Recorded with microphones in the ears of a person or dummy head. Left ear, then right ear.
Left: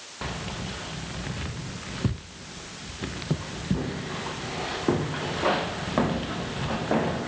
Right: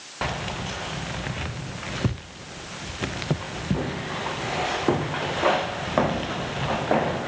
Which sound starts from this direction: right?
Keys jangling, at 0.2 s.